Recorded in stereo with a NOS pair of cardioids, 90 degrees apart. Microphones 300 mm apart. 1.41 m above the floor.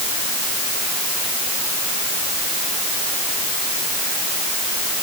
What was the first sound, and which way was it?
Only background noise.